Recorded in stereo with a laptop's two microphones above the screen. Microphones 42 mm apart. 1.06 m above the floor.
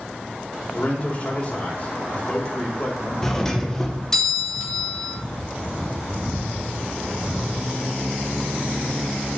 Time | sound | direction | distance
0.7 | a man speaking | 25° left (ahead or behind) | 3.5 m
3.2 | a doorbell | 5° left (ahead or behind) | 1.2 m